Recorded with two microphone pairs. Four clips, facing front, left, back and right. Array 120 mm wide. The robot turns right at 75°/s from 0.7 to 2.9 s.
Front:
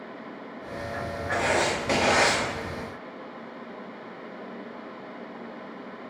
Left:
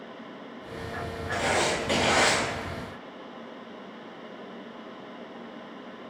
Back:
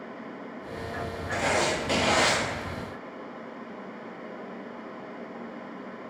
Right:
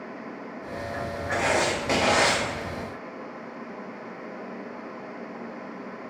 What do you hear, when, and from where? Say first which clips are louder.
1.3 s writing: right 2 dB, front 1 dB; 85° right, 0.7 m; by 2.4 s straight ahead, 0.7 m